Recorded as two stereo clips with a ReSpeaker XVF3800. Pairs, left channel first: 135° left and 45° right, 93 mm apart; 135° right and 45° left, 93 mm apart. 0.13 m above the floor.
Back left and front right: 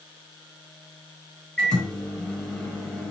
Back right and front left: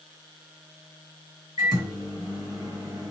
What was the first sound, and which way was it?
A microwave, 60° left.